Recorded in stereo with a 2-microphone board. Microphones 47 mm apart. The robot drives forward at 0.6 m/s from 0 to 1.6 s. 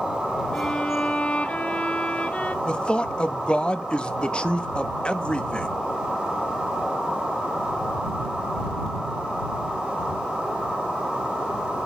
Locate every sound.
0.5 s a violin: 20° left (ahead or behind), 0.9 m; by 2.5 s 25° left (ahead or behind), 0.7 m
2.6 s a man speaking: 20° left (ahead or behind), 0.8 m